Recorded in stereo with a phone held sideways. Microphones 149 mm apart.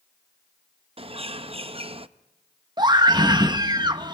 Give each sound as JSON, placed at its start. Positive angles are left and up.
{"t": 1.0, "sound": "a bird", "side_deg": -40, "distance_m": 0.6}
{"t": 2.8, "sound": "a scream", "side_deg": -30, "distance_m": 1.2}